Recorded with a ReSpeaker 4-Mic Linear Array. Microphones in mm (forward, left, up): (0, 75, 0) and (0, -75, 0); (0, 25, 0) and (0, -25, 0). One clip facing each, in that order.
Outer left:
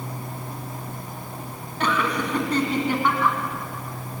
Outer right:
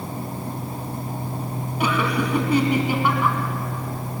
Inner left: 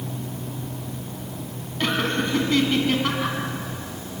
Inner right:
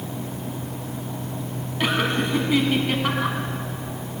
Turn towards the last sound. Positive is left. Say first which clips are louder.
# outer right 2 dB, inner right 1 dB
turn(degrees=-10)  # may be behind; listen again after turning